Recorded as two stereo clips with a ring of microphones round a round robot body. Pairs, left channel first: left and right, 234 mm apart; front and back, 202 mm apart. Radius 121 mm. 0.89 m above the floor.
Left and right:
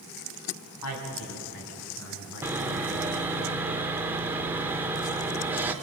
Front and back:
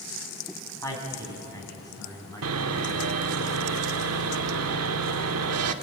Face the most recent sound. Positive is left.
turn(degrees=-170)